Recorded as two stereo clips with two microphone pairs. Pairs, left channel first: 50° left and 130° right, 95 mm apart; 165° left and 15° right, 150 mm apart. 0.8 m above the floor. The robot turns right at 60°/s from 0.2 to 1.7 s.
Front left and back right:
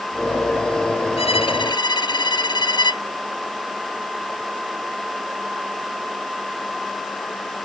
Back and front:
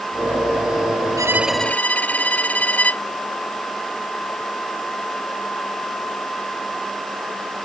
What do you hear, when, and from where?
1.2 s a violin: 55° left; by 3.0 s 90° left